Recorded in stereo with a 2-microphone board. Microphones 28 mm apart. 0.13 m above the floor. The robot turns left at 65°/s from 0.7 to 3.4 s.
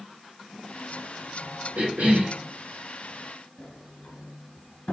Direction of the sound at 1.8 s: 65° right.